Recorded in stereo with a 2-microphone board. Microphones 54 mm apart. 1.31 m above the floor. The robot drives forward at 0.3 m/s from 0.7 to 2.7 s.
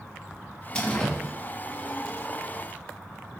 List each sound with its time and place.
0.8 s a door slam: 15° left (ahead or behind), 1.7 m; by 1.2 s 20° left (ahead or behind), 1.6 m